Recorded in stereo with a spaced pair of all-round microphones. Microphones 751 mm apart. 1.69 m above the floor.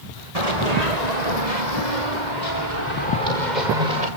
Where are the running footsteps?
50° right (ahead or behind), 4.5 m; by 4.1 s 80° right, 9 m.